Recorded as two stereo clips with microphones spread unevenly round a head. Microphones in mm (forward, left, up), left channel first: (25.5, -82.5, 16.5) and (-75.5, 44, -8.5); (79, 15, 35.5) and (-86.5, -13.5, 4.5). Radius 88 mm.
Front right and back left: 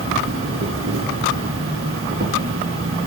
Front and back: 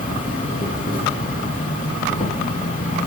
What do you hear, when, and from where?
0.0 s an insect: 70° left, 3.5 m